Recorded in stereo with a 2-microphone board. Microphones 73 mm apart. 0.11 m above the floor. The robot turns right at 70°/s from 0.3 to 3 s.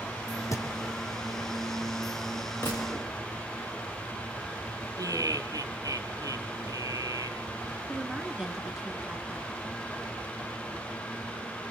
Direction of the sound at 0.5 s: 50° left (ahead or behind).